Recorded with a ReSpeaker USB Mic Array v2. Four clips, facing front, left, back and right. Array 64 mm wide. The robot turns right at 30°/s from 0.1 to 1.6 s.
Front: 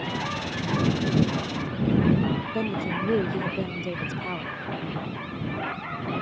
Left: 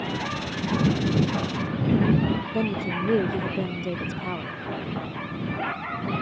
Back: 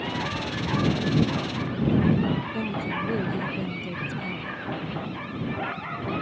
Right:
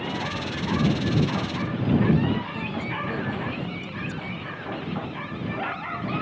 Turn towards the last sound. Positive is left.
turn(degrees=55)